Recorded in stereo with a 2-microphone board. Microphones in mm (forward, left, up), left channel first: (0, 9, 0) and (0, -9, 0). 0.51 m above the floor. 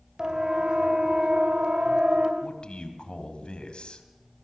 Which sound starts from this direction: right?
A siren, at 0.2 s.